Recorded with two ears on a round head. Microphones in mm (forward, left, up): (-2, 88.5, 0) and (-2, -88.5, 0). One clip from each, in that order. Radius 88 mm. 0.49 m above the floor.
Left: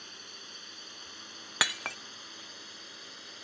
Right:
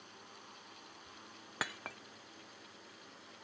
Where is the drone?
70° left (ahead or behind); by 3.4 s 75° left (ahead or behind).